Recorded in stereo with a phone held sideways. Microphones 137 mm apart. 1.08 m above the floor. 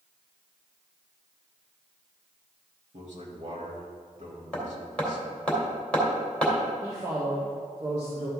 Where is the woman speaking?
55° right (ahead or behind), 2.5 m.